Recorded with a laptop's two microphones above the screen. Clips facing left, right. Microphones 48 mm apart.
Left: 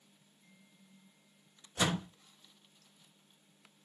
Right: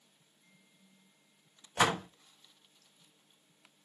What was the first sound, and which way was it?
A door slam, 60° right (ahead or behind).